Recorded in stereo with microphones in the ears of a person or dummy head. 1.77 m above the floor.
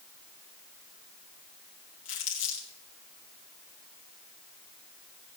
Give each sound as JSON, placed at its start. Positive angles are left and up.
{"t": 2.0, "sound": "crumpling", "side_deg": 40, "distance_m": 3.5}